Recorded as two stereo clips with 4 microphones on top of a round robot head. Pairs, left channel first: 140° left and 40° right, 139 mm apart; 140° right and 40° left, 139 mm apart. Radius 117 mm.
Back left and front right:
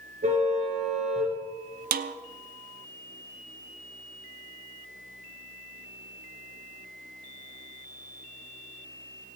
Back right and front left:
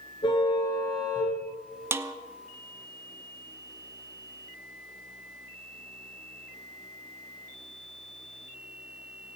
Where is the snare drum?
35° right, 0.8 m.